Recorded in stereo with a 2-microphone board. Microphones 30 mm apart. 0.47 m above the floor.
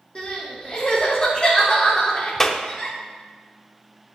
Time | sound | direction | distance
0.1 | crying | 35° left (ahead or behind) | 4.5 m
2.4 | a clap | 15° left (ahead or behind) | 0.7 m